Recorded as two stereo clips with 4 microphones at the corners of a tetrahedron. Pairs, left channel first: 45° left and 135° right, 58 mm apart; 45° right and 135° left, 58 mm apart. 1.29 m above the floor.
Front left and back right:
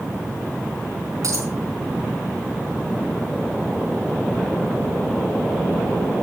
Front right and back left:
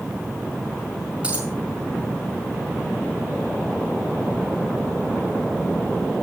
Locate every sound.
1.2 s a dropped coin: 155° right, 4.5 m